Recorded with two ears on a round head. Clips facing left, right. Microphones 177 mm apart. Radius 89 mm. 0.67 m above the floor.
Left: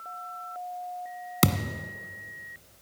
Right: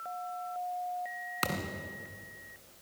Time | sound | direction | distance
1.4 | a thud | 60° left (ahead or behind) | 1.2 m